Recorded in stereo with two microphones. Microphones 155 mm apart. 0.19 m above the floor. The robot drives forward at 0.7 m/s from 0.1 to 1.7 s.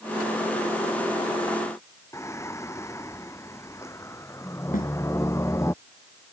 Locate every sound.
2.1 s singing: 20° left (ahead or behind)
4.7 s a snare drum: 65° left (ahead or behind)